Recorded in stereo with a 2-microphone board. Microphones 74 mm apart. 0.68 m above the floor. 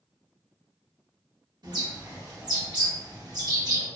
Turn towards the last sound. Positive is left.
turn(degrees=-70)  # may be behind; listen again after turning